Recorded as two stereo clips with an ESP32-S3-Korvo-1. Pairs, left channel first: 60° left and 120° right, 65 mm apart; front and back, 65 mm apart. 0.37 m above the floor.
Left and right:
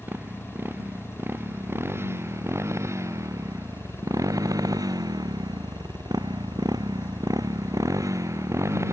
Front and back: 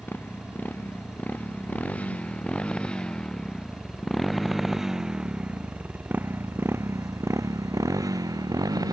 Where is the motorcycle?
60° right; by 8.9 s 165° right.